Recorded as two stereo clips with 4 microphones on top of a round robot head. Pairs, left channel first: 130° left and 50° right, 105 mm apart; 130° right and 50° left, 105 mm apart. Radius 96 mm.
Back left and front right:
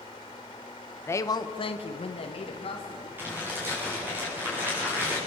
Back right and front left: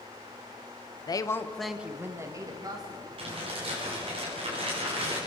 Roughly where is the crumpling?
Ahead.